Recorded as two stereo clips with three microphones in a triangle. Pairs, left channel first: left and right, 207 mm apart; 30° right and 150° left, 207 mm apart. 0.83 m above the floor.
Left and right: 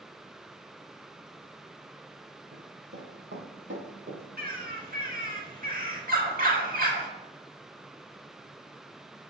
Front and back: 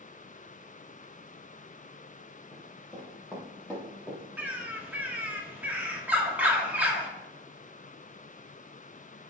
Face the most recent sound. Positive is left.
turn(degrees=-130)